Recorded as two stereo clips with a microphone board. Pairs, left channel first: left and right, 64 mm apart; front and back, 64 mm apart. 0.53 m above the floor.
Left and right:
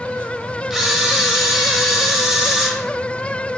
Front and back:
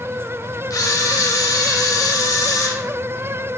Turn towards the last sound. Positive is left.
turn(degrees=-10)